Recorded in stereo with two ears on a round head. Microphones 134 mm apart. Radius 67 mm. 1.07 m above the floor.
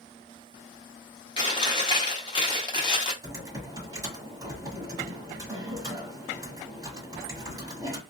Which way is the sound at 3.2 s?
25° right (ahead or behind).